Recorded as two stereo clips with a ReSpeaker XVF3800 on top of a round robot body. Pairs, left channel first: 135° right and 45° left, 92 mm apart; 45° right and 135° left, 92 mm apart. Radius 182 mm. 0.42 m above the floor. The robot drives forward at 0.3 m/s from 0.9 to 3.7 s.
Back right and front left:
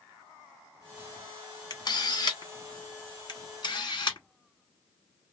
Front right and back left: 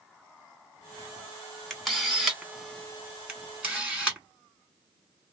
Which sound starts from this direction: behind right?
A camera shutter, at 1.7 s.